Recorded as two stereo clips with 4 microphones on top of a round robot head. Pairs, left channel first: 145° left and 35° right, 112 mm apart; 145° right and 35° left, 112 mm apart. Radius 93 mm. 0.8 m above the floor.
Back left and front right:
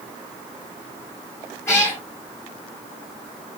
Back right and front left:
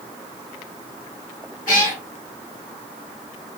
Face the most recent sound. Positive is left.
turn(degrees=-145)